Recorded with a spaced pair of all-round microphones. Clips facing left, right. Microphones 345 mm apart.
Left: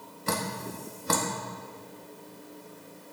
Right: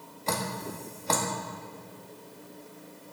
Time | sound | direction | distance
0.3 | dripping | 20° left (ahead or behind) | 1.5 m